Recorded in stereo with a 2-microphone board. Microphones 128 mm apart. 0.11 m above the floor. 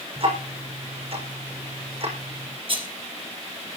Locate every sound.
0.2 s ticking: 50° right (ahead or behind), 5.5 m
2.7 s a rattle: 45° right (ahead or behind), 2.5 m